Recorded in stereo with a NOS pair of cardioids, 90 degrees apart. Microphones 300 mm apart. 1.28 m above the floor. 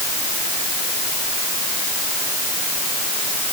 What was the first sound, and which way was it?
Only background noise.